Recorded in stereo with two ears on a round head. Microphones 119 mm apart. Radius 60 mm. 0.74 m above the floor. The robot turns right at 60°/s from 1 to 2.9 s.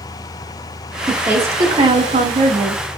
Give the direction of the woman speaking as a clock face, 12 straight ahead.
6 o'clock.